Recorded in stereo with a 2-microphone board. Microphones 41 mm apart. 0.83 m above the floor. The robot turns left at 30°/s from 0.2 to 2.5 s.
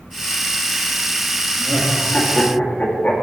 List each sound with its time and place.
1.6 s laughter: 55° left (ahead or behind), 1.7 m; by 3.1 s 30° left (ahead or behind), 1.7 m